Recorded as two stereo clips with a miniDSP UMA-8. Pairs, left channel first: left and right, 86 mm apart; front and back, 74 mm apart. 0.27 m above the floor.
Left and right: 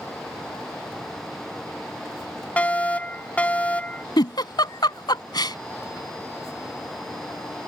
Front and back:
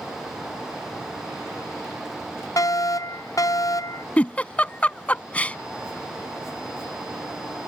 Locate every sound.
2.6 s a fire alarm: 20° left
4.2 s a giggle: 70° left